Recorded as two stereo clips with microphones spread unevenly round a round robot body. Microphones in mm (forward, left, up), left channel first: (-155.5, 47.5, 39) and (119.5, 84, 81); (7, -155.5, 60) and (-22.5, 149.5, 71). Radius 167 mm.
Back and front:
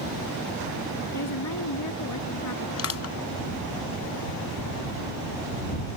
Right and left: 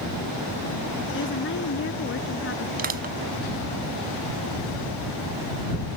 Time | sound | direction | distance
1.1 | a woman speaking | 135° right | ?
2.8 | crushing | 160° left | ?